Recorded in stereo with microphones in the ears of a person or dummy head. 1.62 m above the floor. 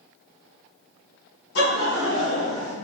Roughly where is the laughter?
Left.